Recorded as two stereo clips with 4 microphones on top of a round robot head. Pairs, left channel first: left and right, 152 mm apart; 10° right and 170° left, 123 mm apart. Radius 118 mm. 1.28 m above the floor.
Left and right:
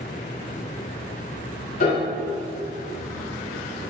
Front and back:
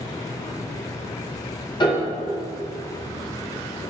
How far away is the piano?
About 2.5 m.